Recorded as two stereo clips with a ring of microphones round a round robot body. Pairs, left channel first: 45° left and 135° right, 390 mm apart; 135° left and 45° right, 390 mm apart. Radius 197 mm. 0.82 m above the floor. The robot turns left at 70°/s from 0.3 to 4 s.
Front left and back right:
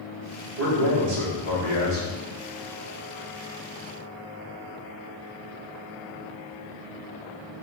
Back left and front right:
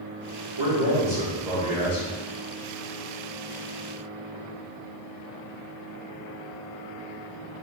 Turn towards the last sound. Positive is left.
turn(degrees=45)